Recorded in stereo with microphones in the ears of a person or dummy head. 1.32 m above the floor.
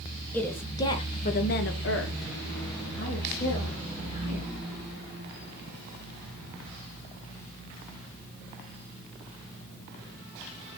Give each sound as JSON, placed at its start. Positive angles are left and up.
{"t": 0.3, "sound": "a woman speaking", "side_deg": 10, "distance_m": 1.2}